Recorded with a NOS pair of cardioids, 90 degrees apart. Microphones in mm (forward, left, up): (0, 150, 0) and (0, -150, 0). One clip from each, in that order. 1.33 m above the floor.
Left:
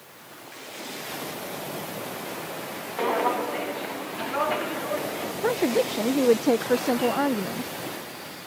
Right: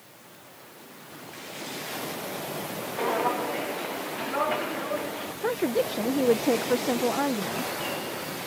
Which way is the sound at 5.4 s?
10° left.